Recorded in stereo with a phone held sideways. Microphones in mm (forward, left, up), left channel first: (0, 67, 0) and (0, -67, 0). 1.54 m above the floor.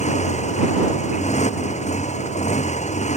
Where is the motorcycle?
60° left (ahead or behind).